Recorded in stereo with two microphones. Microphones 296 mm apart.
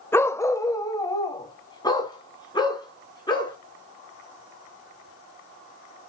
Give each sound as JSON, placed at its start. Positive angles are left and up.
{"t": 0.1, "sound": "a dog barking", "side_deg": 10, "distance_m": 0.8}